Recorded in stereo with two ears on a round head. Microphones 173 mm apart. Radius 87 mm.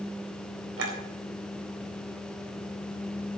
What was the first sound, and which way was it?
A clink, 80° right.